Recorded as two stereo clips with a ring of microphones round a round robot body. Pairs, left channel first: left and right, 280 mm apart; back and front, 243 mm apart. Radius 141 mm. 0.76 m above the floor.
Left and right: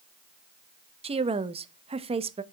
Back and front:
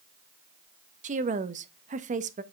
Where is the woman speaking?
35° right, 0.8 m.